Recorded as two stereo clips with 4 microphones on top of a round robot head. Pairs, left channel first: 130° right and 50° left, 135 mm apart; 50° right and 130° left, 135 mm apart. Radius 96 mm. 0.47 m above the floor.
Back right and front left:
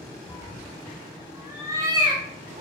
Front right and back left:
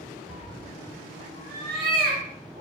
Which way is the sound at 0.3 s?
165° left.